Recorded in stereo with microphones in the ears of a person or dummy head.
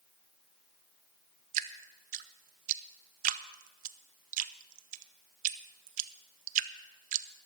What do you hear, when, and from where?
1.5 s dripping: 45° right (ahead or behind), 0.7 m